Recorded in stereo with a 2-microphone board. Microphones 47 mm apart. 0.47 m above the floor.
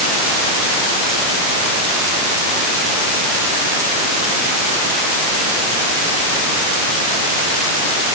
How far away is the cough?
No cough in this recording.